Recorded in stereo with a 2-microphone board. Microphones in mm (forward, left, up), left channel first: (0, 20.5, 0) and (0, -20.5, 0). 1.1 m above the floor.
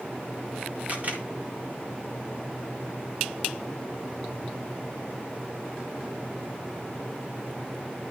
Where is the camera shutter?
35° right (ahead or behind), 1.7 m.